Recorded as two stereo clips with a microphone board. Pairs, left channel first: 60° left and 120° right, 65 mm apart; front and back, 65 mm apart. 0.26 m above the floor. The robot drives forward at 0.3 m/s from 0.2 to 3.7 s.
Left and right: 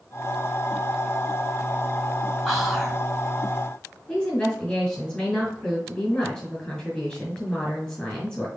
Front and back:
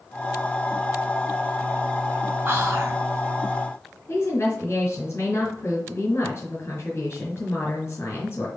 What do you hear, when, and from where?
2.5 s whispering: 155° left, 1.6 m
4.1 s a woman speaking: 15° right, 1.8 m